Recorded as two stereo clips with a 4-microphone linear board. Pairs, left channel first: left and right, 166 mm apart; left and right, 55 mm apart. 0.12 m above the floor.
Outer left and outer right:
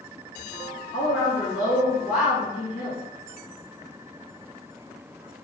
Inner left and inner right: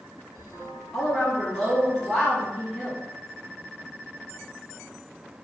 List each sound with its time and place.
0.9 s a woman speaking: 5° right (ahead or behind), 1.7 m